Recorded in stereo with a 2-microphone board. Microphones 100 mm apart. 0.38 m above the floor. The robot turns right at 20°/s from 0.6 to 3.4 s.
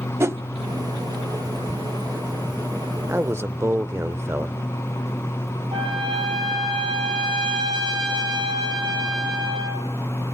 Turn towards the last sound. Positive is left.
turn(degrees=-65)  # may be behind; listen again after turning